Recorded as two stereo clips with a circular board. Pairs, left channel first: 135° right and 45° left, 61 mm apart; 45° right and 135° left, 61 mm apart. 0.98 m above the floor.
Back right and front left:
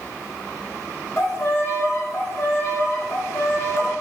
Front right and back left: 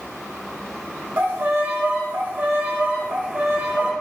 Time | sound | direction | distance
1.2 | a violin | 170° right | 0.7 m